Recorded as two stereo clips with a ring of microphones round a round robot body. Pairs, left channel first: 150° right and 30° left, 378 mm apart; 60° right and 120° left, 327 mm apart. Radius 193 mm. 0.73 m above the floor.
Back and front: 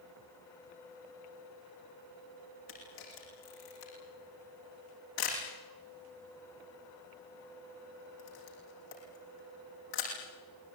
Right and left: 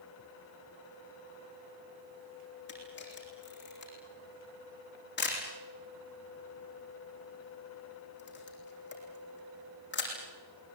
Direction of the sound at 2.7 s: 120° right.